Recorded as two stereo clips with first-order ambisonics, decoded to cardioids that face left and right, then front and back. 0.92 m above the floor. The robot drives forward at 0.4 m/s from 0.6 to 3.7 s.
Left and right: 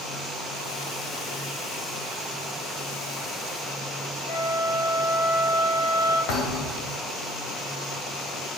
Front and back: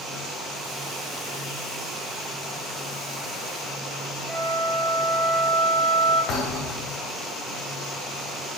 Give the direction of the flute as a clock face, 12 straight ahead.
9 o'clock.